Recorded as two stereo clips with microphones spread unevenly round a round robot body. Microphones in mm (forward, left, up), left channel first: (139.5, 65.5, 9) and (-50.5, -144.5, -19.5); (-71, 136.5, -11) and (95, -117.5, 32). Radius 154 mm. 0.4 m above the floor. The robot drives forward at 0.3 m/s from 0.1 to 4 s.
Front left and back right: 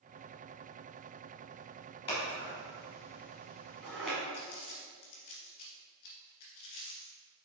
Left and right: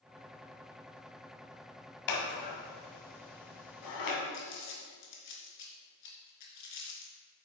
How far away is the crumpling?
About 2 m.